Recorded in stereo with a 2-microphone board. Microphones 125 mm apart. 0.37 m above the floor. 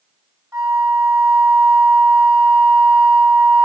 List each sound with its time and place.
0.5 s a flute: 25° right (ahead or behind), 1.3 m